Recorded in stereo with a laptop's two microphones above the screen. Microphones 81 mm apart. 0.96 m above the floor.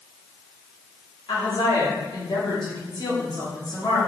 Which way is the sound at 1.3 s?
60° left (ahead or behind).